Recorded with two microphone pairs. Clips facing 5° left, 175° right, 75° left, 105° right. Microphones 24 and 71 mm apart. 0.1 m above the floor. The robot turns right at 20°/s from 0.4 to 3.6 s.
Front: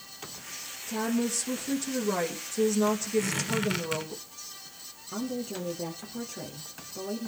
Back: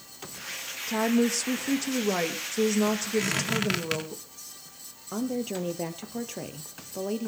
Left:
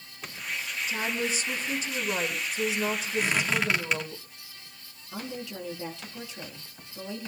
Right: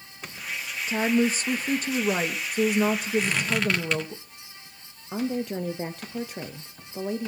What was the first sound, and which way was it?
A woman speaking, 150° right.